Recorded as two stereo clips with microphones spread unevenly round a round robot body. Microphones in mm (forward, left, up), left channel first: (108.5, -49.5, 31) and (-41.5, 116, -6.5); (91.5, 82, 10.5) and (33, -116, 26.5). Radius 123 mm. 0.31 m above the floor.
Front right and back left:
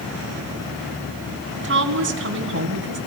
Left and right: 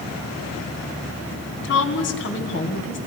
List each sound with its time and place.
1.6 s a woman speaking: 105° left, 2.5 m